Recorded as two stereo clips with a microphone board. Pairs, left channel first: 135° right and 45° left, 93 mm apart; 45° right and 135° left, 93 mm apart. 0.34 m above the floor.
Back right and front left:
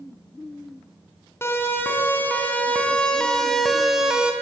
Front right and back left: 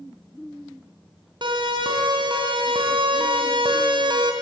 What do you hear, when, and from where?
1.4 s a siren: 160° left, 4 m; by 4.3 s 125° left, 2.5 m